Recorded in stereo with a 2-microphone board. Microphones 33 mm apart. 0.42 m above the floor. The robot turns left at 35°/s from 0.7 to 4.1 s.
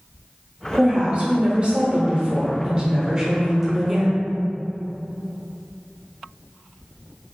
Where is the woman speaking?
50° right, 0.8 m; by 4.3 s 170° right, 0.8 m.